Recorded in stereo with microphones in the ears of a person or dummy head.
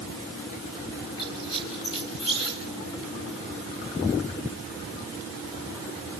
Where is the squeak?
25° left (ahead or behind), 5 m.